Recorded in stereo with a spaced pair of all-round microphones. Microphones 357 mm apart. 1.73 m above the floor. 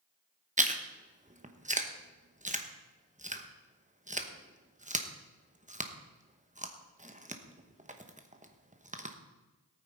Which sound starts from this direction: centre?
Chewing, at 0.6 s.